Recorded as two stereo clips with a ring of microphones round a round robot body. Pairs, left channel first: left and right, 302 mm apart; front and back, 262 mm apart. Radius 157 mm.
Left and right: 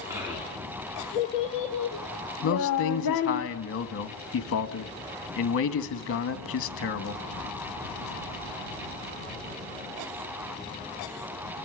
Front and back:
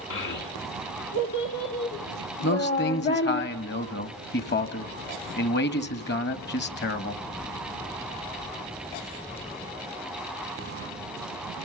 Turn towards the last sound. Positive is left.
turn(degrees=45)